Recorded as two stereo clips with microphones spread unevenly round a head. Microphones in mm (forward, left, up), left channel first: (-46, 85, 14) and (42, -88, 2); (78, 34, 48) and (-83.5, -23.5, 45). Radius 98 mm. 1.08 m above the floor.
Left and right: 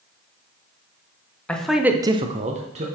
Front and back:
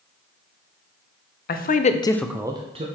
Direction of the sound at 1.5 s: 30° left.